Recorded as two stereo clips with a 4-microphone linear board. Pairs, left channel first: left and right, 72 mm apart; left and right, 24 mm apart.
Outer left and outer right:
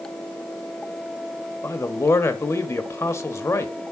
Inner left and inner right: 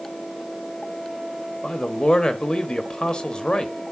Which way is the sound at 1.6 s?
40° left (ahead or behind).